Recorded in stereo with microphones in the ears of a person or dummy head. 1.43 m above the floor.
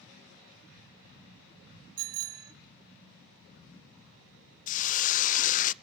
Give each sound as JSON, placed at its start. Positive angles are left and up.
{"t": 2.0, "sound": "a bicycle bell", "side_deg": -75, "distance_m": 2.5}
{"t": 4.7, "sound": "a hiss", "side_deg": 40, "distance_m": 0.6}